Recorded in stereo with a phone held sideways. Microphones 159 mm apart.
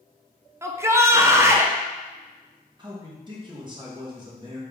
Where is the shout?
15° right (ahead or behind), 0.5 m.